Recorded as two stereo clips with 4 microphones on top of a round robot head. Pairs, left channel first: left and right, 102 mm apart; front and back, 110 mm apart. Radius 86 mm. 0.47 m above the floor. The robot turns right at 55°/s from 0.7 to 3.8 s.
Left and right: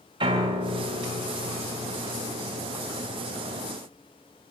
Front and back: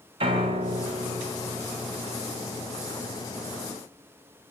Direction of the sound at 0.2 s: 135° right.